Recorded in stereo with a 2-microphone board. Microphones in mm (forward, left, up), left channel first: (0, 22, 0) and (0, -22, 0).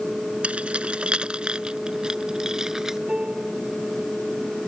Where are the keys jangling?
30° right (ahead or behind); by 3.0 s 10° right (ahead or behind).